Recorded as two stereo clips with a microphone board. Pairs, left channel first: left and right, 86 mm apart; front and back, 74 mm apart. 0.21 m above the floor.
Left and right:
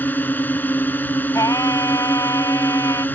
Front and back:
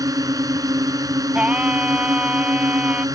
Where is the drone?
155° left.